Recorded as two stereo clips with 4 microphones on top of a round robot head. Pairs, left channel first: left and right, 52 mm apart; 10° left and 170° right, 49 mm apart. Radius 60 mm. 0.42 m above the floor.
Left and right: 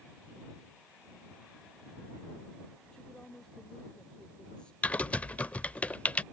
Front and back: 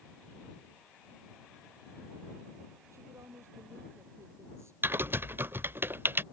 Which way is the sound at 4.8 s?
155° left.